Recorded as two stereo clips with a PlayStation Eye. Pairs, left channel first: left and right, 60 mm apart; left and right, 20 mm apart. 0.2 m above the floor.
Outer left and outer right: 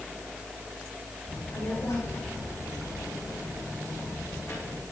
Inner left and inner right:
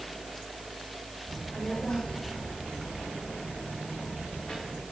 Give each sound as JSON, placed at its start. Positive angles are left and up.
{"t": 1.3, "sound": "a child speaking", "side_deg": 70, "distance_m": 8.0}